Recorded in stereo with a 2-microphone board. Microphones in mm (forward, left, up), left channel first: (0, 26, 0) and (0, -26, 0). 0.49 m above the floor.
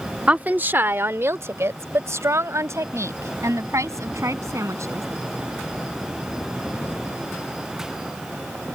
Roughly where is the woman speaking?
Right.